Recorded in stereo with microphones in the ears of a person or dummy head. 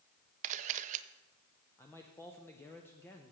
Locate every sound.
0.4 s a camera shutter: 40° right (ahead or behind), 0.5 m
1.8 s a man speaking: 10° left (ahead or behind), 0.7 m